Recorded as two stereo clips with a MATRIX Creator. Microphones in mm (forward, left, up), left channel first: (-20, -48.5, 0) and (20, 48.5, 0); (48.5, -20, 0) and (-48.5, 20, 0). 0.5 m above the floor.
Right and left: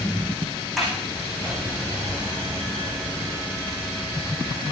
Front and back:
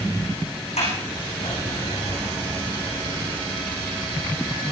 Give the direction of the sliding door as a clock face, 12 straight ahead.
1 o'clock.